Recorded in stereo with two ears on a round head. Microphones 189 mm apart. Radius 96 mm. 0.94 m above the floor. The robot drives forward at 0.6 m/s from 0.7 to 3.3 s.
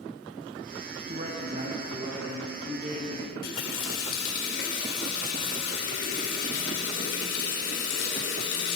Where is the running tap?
70° left (ahead or behind), 2.5 m.